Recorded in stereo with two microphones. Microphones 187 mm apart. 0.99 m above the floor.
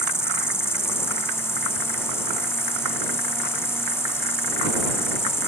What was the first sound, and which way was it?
An insect, 15° left (ahead or behind).